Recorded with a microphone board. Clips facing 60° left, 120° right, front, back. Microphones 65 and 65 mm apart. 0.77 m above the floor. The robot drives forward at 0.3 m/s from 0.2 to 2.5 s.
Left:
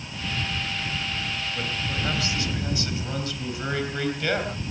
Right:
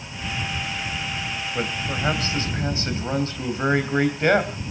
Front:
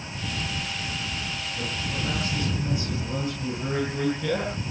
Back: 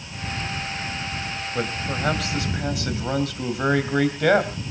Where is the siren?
No siren in this recording.